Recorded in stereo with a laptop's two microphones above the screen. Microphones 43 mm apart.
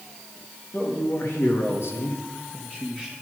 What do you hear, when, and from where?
0.7 s a man speaking: 55° left (ahead or behind), 2.0 m; by 3.1 s 20° left (ahead or behind), 1.6 m